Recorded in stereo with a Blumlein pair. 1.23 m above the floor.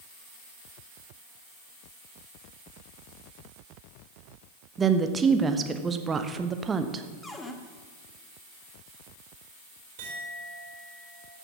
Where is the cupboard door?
10° left, 1.3 m.